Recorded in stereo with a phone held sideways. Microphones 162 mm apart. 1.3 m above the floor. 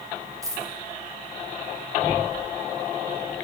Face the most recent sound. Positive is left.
turn(degrees=-20)  # may be behind; listen again after turning